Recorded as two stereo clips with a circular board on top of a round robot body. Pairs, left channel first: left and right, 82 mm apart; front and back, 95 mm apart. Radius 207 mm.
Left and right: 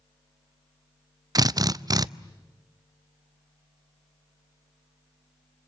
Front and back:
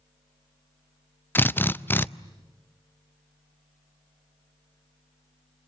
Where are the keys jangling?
No keys jangling in this recording.